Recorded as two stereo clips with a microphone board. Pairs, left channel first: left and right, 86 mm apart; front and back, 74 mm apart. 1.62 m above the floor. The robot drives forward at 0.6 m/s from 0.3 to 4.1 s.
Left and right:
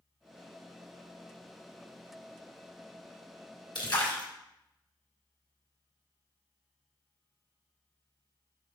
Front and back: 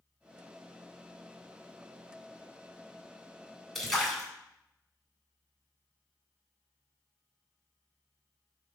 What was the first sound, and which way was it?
A splash, 85° left.